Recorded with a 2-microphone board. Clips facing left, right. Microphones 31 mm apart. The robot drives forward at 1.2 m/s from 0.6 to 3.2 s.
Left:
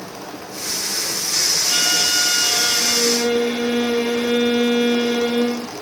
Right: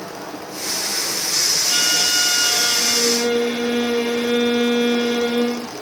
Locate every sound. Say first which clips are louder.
0.0 s running water: right 2 dB; 65° right (ahead or behind), 5 m; by 5.8 s 40° right (ahead or behind), 6.5 m
1.7 s a violin: even; 10° right (ahead or behind), 1.6 m; by 5.7 s 5° right (ahead or behind), 2 m